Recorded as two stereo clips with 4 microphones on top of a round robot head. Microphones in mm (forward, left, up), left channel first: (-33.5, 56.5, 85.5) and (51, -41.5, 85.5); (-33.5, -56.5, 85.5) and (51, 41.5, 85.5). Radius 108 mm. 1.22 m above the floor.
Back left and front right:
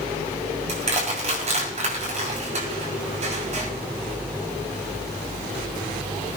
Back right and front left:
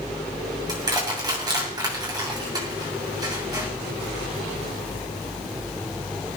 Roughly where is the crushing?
Ahead.